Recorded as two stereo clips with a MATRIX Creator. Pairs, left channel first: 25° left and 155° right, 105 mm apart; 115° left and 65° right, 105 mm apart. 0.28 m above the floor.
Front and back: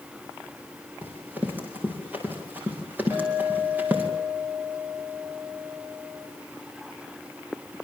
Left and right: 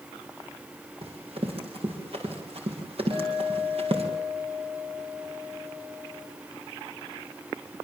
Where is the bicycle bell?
I don't hear a bicycle bell.